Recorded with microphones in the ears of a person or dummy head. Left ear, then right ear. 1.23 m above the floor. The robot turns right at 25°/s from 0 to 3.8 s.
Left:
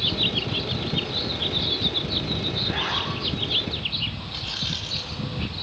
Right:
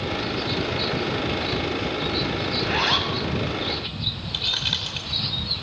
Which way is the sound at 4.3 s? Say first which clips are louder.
Right 6 dB; 35° right (ahead or behind).